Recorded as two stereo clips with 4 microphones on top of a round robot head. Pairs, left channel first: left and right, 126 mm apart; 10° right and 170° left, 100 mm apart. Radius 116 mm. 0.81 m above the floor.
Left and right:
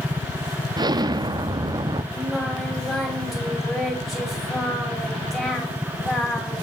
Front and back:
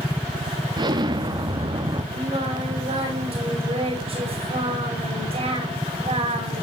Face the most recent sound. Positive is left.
turn(degrees=180)